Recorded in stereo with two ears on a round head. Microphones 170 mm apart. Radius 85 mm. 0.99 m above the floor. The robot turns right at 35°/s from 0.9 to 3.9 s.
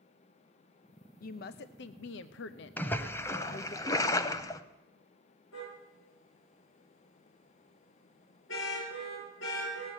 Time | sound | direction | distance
1.2 | a woman speaking | 50° left | 0.6 m
2.8 | a splash | 10° left (ahead or behind) | 0.8 m
5.5 | a car horn | 80° left | 8.5 m